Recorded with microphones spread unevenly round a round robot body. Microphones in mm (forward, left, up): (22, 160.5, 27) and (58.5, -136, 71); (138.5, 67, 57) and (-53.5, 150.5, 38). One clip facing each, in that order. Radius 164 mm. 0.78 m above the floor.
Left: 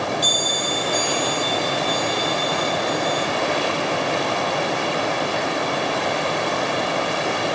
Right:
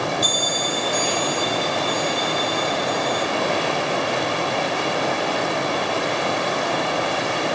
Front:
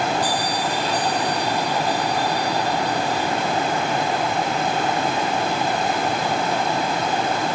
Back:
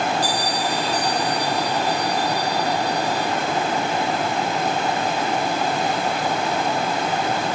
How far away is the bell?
About 3.5 m.